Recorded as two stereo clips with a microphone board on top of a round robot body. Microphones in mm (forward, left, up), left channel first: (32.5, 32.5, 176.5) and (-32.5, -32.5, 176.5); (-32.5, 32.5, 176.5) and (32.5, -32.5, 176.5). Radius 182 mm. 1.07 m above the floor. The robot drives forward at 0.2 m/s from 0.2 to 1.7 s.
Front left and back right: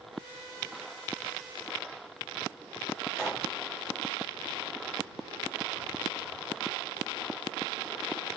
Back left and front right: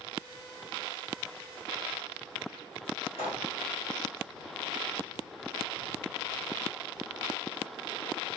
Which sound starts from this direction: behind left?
A pop, at 3.1 s.